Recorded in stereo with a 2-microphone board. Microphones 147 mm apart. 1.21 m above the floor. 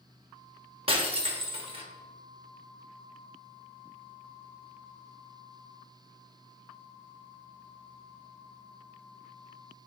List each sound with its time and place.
0.9 s breaking glass: 40° right (ahead or behind), 0.9 m